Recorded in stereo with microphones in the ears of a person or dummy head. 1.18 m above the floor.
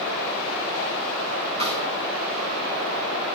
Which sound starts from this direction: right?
A snare drum, at 1.6 s.